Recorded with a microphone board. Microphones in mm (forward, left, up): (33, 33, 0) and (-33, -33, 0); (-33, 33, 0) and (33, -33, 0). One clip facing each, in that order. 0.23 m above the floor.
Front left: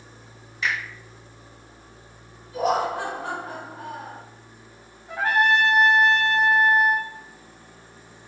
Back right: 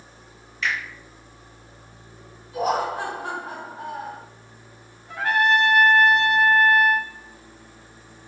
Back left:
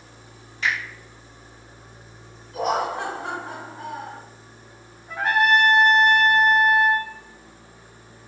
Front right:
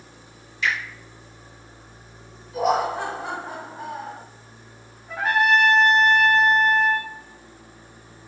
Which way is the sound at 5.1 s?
50° left.